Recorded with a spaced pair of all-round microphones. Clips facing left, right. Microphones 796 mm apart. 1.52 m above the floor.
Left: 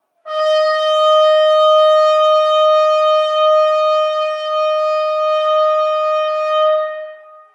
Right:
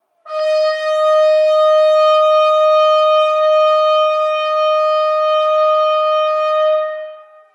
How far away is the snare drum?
I don't hear a snare drum.